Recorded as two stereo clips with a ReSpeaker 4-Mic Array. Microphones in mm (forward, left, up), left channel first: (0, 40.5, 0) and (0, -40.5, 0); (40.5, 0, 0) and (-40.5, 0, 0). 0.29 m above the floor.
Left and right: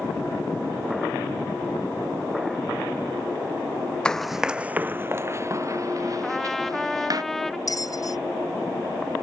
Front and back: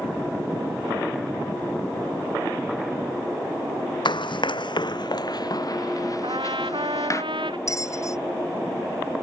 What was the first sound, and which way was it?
Running footsteps, 10° left.